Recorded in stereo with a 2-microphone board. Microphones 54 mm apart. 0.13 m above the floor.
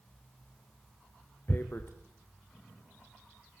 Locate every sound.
1.5 s tearing paper: 45° left (ahead or behind), 3 m